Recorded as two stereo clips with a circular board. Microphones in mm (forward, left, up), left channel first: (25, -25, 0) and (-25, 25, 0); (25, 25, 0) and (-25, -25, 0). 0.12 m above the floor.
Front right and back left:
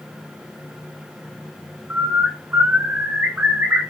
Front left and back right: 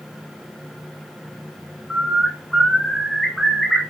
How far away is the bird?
About 0.7 m.